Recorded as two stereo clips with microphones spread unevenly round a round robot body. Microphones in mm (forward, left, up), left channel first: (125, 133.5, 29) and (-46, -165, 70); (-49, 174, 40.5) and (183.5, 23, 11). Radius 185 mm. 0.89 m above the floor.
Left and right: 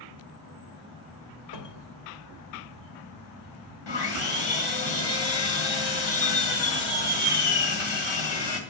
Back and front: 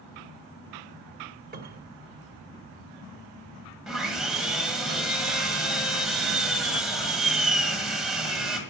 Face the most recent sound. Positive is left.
turn(degrees=55)